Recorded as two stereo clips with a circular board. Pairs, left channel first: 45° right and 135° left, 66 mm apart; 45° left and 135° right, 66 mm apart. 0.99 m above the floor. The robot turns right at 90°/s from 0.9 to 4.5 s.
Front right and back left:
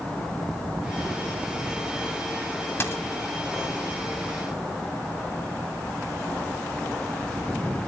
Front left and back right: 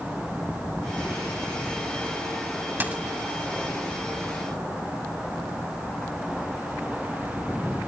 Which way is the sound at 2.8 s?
80° right.